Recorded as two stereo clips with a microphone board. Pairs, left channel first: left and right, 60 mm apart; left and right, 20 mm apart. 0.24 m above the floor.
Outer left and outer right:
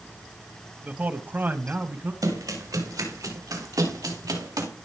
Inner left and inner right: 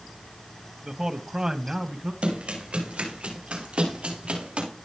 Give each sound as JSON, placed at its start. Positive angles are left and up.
{"t": 0.8, "sound": "a man speaking", "side_deg": -25, "distance_m": 1.1}
{"t": 2.2, "sound": "running footsteps", "side_deg": -75, "distance_m": 6.5}